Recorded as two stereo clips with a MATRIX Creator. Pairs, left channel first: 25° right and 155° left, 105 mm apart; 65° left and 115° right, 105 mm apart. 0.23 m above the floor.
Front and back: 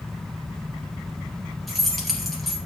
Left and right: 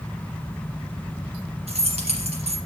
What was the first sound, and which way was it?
Keys jangling, 115° right.